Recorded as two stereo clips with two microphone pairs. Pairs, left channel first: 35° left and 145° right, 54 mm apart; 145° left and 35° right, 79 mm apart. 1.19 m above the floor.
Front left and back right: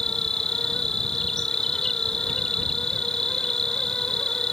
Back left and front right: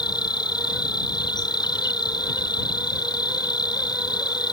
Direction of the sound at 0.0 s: 115° left.